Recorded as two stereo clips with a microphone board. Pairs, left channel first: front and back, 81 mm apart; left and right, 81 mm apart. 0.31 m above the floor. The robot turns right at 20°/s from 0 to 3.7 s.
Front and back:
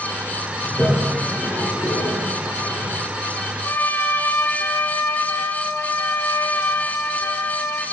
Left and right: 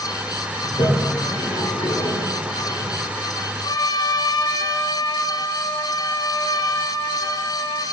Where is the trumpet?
60° left, 1.4 m; by 7.8 s 65° left, 1.4 m.